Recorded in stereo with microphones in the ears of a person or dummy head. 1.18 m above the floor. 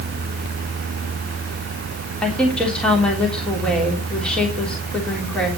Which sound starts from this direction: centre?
A woman speaking, at 2.2 s.